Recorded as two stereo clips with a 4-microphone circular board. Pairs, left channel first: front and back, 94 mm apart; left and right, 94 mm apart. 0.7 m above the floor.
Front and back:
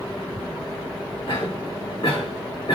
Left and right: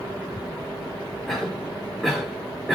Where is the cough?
Straight ahead, 1.2 m.